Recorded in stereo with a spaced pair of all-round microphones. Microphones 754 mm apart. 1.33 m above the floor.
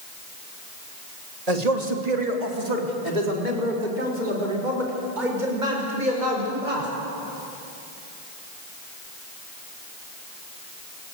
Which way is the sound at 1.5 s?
55° right (ahead or behind).